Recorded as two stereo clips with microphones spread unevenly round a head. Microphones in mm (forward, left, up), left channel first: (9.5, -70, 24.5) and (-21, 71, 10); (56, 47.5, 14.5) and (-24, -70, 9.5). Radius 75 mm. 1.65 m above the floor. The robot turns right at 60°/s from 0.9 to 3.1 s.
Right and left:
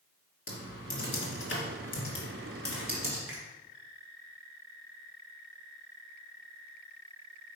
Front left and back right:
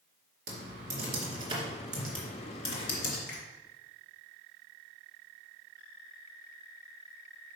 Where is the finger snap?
100° left, 2 m.